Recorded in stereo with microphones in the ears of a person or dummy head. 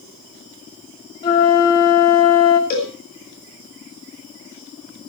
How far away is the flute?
About 1.3 m.